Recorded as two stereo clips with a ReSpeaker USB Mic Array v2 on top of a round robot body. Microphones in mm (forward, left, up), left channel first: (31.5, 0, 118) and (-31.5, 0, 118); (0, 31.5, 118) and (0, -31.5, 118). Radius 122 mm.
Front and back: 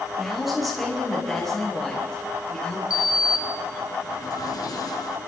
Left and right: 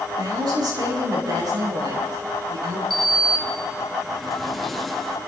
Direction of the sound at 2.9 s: Straight ahead.